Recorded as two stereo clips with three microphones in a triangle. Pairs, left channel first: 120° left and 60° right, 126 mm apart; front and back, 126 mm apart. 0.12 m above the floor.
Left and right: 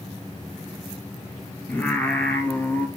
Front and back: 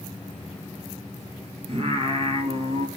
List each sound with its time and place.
1.7 s singing: 165° right, 1.2 m